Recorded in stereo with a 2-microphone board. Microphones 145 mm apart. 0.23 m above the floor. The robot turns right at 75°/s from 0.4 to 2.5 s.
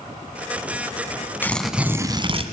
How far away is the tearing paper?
About 1.4 m.